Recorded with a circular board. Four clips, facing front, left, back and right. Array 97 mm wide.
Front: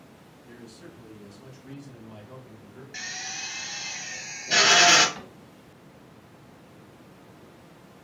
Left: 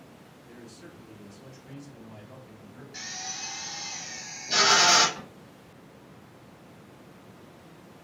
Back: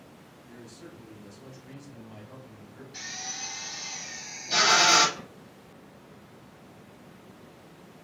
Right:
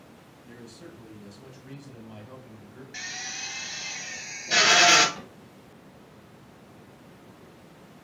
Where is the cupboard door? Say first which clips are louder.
Even, front 1 dB; 5° right, 1.5 m.